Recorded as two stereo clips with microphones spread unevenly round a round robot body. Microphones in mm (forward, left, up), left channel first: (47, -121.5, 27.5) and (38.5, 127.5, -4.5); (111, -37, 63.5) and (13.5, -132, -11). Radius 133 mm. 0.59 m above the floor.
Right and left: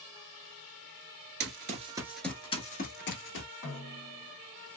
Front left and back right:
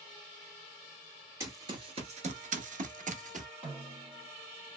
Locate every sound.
1.4 s running footsteps: 115° left, 0.6 m; by 3.5 s 85° right, 0.9 m
3.6 s a snare drum: 175° left, 1.9 m